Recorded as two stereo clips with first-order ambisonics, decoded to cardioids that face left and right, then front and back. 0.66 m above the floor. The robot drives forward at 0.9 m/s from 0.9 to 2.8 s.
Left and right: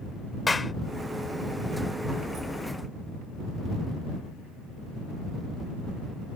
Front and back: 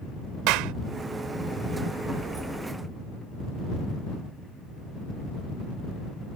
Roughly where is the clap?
Behind.